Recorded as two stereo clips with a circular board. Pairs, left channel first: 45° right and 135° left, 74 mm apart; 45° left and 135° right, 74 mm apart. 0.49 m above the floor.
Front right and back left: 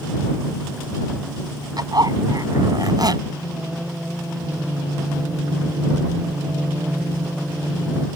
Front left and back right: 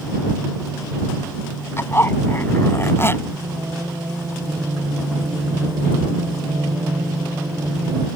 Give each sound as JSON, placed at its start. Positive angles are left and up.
{"t": 1.8, "sound": "a zipper", "azimuth_deg": 105}
{"t": 3.3, "sound": "singing", "azimuth_deg": -155}